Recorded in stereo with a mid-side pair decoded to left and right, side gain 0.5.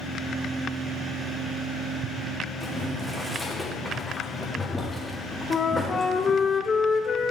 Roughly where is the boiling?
Ahead.